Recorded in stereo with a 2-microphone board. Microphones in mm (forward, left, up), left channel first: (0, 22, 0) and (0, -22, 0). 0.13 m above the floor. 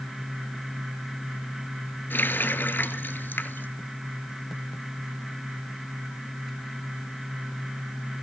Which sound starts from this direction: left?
A running tap, at 2.1 s.